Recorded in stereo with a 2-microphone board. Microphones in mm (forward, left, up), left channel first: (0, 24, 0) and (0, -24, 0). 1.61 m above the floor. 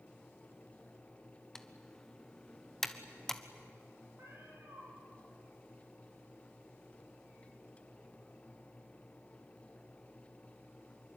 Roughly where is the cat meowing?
Right.